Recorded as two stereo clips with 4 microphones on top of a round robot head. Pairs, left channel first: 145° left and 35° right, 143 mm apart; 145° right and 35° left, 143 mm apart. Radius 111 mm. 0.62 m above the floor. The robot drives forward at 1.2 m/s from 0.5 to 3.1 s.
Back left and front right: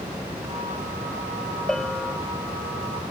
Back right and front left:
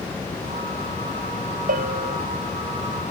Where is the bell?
60° left.